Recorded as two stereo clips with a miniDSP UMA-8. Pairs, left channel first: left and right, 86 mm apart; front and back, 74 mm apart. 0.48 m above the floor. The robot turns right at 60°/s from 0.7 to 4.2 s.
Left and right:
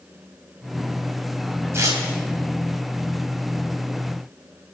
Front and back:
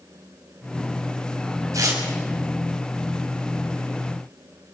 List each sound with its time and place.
1.7 s tearing paper: 145° right, 3.5 m; by 2.0 s 130° right, 3.5 m